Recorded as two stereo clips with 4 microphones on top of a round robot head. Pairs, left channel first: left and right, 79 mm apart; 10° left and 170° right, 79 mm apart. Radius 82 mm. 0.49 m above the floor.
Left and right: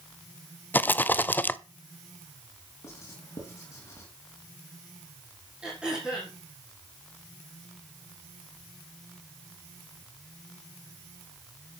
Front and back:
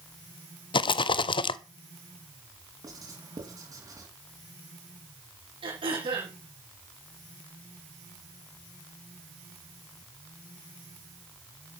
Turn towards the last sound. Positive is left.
turn(degrees=-175)